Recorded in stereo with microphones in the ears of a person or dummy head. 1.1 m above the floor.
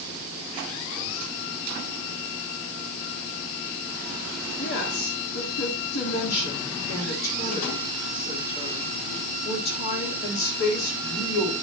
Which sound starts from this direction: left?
A woman speaking, at 4.6 s.